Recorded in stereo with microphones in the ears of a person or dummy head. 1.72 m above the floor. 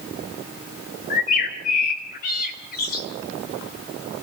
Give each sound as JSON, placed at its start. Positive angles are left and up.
{"t": 1.1, "sound": "a bird", "side_deg": 50, "distance_m": 2.5}